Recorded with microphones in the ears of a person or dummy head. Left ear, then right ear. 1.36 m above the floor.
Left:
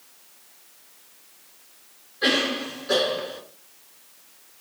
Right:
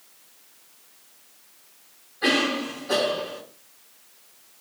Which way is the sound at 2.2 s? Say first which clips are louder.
Even; 30° left (ahead or behind).